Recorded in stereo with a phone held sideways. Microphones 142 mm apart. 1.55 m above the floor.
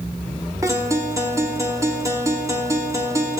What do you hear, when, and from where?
0.6 s a guitar: 20° right (ahead or behind), 1.1 m